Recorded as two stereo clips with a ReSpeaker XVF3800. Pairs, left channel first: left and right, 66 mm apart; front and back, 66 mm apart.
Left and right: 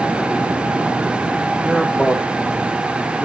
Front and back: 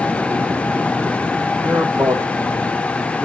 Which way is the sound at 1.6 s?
170° left.